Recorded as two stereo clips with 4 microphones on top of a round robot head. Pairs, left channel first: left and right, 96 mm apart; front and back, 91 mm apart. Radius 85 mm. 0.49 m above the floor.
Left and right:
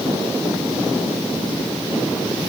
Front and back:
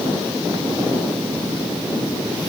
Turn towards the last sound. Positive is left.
No sound to turn to.